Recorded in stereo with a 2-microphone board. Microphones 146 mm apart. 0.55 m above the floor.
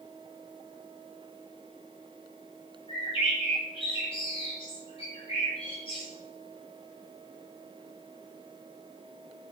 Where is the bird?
35° left (ahead or behind), 3.5 m.